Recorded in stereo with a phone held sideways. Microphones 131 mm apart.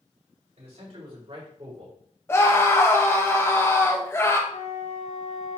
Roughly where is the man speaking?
Right.